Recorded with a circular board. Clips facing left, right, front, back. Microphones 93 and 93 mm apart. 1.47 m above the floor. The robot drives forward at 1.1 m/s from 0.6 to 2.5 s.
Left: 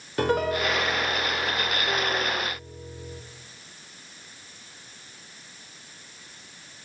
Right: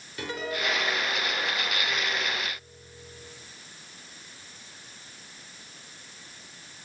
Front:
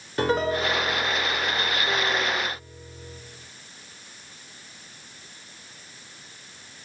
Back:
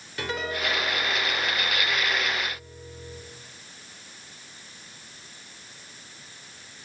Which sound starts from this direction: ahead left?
A piano, at 0.2 s.